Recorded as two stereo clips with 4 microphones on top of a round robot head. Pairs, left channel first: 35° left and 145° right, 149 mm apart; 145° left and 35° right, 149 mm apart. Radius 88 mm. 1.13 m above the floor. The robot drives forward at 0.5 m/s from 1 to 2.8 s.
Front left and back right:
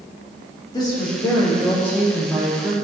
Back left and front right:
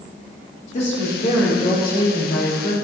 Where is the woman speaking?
100° left, 1.7 m; by 2.7 s 125° left, 2 m.